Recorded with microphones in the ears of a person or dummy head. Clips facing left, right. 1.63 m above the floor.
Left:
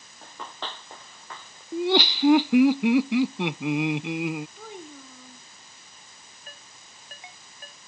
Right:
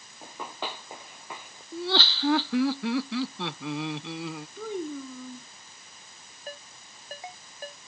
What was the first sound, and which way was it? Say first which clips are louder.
Running footsteps: right 2 dB; 10° right (ahead or behind).